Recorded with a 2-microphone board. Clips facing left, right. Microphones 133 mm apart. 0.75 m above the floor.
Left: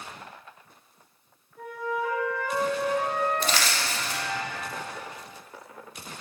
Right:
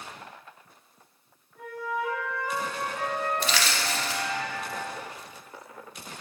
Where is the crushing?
45° left (ahead or behind), 0.9 m.